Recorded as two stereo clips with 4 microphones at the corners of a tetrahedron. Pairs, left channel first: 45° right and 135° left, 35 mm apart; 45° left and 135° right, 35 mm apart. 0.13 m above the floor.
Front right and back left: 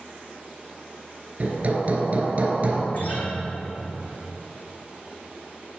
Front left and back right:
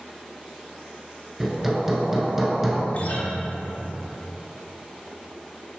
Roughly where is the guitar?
Ahead.